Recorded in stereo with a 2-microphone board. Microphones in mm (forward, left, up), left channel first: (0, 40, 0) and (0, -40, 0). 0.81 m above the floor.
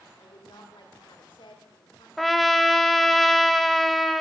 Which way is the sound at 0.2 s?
75° left (ahead or behind).